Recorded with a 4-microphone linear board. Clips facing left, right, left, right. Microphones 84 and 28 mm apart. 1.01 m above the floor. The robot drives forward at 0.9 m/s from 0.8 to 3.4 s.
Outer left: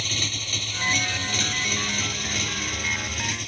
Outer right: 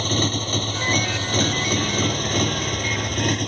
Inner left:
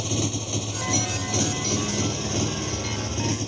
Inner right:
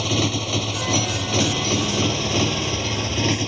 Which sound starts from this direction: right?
A motorcycle, at 0.0 s.